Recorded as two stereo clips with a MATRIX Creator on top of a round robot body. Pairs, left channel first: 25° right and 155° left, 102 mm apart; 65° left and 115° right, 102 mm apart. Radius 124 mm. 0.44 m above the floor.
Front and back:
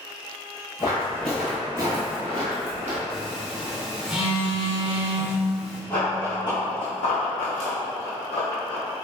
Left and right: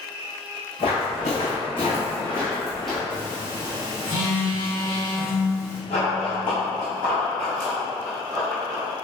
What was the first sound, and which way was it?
Footsteps, 35° left.